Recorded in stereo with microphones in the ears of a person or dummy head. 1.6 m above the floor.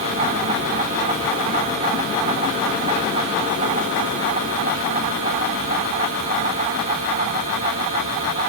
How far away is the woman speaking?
I don't hear a woman speaking.